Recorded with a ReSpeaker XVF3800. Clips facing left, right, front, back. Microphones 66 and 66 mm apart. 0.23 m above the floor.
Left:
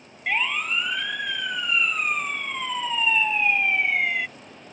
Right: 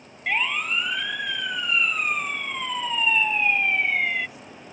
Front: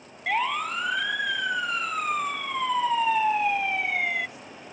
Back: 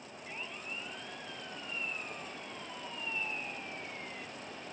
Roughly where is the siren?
Ahead.